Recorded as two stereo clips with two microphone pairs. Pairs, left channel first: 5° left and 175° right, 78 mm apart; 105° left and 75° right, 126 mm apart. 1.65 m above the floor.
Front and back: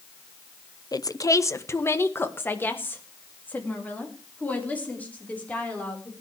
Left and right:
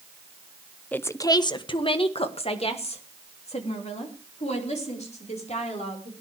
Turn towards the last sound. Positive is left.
turn(degrees=75)